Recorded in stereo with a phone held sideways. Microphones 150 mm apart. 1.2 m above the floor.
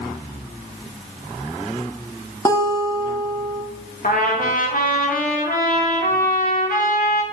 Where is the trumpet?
70° left (ahead or behind), 1.6 m.